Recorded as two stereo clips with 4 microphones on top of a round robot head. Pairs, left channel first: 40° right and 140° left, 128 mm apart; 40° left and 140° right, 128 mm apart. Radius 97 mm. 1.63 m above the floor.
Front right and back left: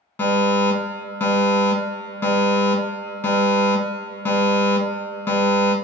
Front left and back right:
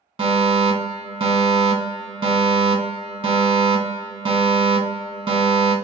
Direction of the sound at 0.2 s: 110° right.